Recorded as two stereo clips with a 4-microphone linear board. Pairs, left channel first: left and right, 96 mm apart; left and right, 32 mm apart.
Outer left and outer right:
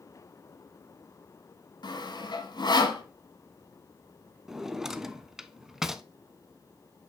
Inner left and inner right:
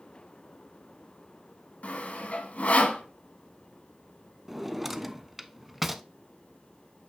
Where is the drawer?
5° right (ahead or behind), 0.6 m.